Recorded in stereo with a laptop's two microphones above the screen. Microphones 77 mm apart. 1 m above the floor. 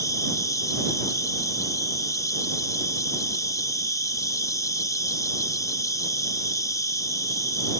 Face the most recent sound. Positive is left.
turn(degrees=45)  # may be behind; listen again after turning